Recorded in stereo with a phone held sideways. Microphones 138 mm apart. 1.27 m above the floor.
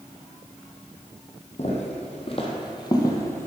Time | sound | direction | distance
1.6 | footsteps | 50° left (ahead or behind) | 2 m